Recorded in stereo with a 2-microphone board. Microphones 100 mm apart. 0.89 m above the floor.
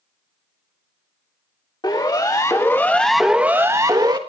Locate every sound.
1.8 s a siren: 45° left (ahead or behind), 3 m; by 4.2 s 45° right (ahead or behind), 2 m